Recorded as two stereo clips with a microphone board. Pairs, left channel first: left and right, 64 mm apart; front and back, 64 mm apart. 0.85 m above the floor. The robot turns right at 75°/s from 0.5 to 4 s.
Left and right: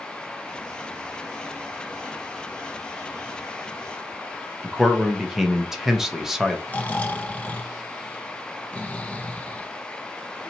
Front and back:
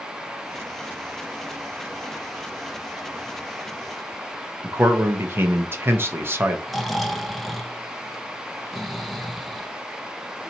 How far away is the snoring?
About 0.7 m.